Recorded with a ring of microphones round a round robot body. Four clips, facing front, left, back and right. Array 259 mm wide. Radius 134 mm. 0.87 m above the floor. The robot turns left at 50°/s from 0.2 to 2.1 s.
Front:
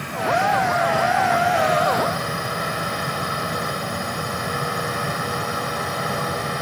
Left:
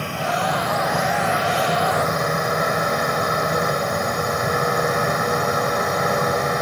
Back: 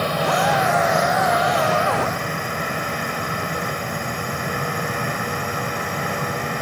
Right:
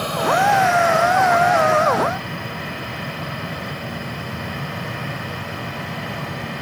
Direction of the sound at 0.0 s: 170° right.